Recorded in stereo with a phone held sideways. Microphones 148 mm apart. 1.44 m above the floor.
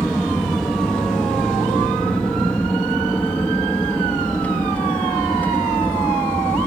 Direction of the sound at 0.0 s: Centre (ahead or behind).